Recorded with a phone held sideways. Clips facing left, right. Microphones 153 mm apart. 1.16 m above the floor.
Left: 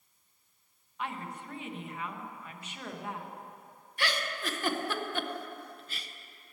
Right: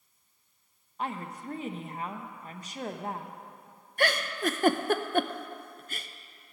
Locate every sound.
1.0 s a woman speaking: 40° right (ahead or behind), 0.9 m
4.0 s a giggle: 50° right (ahead or behind), 0.5 m